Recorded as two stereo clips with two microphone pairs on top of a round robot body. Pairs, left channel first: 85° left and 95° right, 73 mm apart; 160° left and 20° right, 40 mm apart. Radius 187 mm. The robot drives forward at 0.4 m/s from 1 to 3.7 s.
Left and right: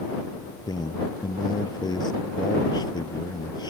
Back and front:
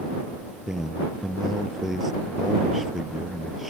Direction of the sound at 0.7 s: 60° left.